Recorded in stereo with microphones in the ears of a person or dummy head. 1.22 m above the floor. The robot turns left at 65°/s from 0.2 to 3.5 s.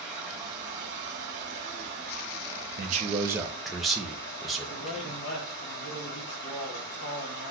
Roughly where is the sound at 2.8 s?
Behind right.